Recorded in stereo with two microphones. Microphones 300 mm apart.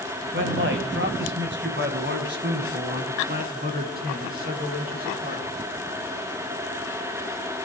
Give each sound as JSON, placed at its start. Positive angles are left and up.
{"t": 0.3, "sound": "a man speaking", "side_deg": -40, "distance_m": 1.5}